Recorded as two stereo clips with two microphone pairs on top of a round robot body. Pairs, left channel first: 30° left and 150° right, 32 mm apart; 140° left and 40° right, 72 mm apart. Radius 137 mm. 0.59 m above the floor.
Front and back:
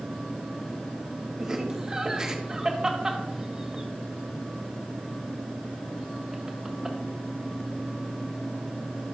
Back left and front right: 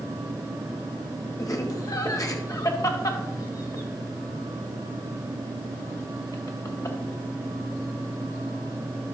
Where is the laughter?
135° left, 1.7 m.